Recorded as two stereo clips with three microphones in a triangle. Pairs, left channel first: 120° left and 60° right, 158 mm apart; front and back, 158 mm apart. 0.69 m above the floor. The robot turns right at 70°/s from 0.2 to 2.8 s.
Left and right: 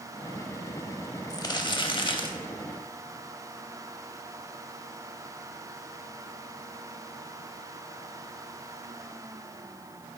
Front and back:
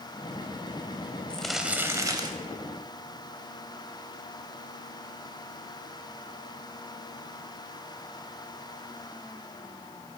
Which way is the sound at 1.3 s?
75° left.